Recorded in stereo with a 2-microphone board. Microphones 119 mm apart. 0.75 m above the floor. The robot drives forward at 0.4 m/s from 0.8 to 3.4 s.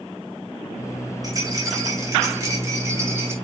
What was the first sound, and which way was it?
A rattle, 30° right (ahead or behind).